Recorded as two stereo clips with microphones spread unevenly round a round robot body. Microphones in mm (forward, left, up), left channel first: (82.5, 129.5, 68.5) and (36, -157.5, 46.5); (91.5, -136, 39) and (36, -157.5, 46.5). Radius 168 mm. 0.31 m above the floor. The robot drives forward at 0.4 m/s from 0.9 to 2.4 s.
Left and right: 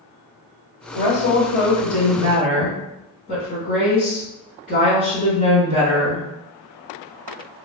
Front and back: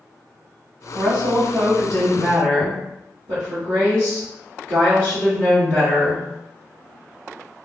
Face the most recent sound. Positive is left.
turn(degrees=140)